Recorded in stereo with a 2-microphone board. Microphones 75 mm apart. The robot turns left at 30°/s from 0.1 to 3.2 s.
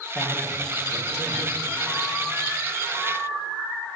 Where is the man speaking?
10° right (ahead or behind), 5 m; by 1.5 s 50° right (ahead or behind), 5 m.